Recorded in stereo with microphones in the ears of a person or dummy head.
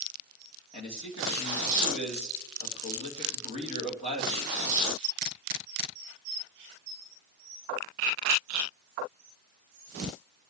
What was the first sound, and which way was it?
A man speaking, 45° left (ahead or behind).